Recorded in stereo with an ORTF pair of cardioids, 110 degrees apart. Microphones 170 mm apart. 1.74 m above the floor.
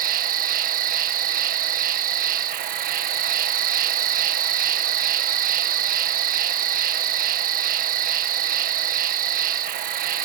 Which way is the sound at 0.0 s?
60° right.